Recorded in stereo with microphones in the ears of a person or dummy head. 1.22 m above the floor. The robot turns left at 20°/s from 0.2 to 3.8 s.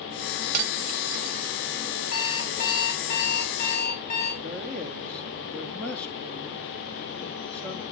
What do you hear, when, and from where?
0.5 s cutlery clinking: 55° right (ahead or behind), 0.7 m; by 1.5 s 40° right (ahead or behind), 0.7 m
2.1 s an alarm clock: 75° left, 5 m; by 4.3 s 40° left, 5 m
4.4 s a man speaking: 5° left (ahead or behind), 2 m